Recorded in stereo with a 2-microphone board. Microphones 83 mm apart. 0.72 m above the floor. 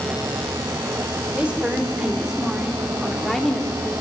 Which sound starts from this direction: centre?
A woman speaking, at 1.3 s.